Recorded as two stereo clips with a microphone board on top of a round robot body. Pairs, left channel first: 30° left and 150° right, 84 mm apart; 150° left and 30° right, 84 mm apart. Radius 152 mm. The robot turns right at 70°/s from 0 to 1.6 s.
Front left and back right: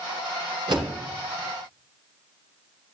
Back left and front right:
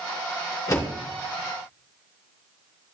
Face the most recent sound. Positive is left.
turn(degrees=-105)